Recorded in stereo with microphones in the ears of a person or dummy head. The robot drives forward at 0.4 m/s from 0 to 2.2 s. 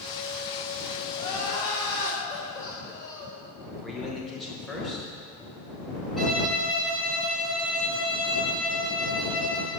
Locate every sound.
1.1 s crying: 25° left (ahead or behind), 1.1 m; by 3.4 s 20° left (ahead or behind), 1.4 m
3.8 s a man speaking: centre (ahead or behind), 1.1 m
6.2 s a violin: centre (ahead or behind), 1.6 m